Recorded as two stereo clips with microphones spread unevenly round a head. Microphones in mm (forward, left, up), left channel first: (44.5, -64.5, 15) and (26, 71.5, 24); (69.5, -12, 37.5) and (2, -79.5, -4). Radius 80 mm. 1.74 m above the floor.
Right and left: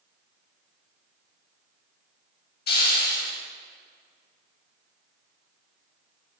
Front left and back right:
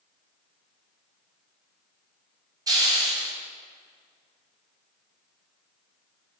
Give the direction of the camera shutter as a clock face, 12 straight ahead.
No camera shutter in this recording.